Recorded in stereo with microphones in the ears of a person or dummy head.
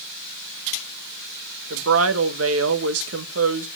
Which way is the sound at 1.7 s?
75° right (ahead or behind).